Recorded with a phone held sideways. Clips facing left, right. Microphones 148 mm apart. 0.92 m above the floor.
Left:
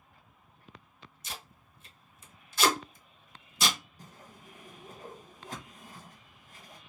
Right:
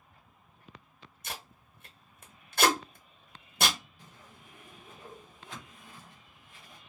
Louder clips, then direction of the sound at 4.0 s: Left 3 dB; 40° left (ahead or behind).